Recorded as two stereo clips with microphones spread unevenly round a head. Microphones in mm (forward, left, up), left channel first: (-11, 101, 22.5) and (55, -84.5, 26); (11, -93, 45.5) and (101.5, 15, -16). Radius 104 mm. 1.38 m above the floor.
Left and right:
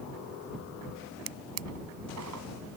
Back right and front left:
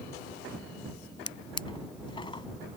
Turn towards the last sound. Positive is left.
turn(degrees=-80)